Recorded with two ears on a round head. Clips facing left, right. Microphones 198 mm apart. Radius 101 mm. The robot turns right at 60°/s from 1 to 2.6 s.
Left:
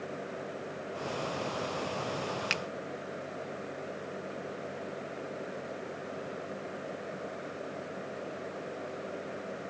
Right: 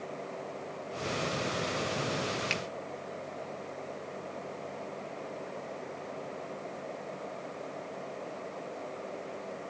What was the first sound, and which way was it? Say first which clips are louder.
A finger snap: right 1 dB; 15° left (ahead or behind).